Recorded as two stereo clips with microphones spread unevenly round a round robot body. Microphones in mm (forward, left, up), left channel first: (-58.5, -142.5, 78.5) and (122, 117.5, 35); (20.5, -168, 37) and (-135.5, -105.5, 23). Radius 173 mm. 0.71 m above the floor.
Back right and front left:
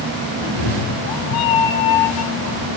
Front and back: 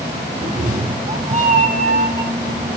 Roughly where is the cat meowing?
Behind right.